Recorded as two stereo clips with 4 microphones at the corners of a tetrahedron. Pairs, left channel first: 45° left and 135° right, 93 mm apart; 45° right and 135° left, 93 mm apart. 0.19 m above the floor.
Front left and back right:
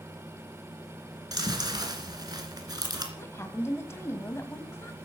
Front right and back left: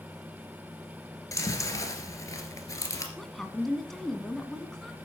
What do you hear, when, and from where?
1.3 s chewing: 95° right, 2 m
3.2 s a woman speaking: 40° left, 1.6 m